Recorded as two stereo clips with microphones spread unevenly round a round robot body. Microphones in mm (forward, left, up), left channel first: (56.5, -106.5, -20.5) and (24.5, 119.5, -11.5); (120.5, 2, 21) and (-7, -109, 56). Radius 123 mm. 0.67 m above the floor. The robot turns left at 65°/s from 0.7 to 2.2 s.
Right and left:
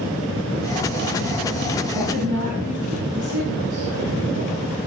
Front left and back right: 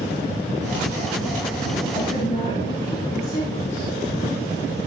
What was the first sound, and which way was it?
A woman speaking, 125° left.